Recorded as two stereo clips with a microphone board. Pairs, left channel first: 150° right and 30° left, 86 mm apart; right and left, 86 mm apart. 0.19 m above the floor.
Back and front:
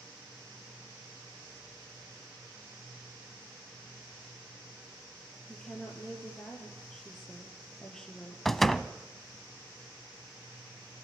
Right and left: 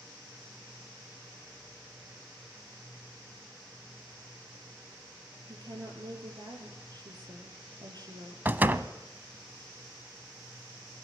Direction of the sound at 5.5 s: 125° left.